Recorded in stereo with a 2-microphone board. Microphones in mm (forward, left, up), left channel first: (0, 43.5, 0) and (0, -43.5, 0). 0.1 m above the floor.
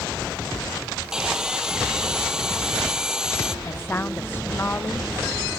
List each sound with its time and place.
1.1 s sawing: 10° right (ahead or behind)
3.6 s a woman speaking: 25° left (ahead or behind)